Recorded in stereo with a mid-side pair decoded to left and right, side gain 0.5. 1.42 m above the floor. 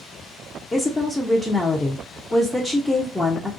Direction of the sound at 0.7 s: 10° left.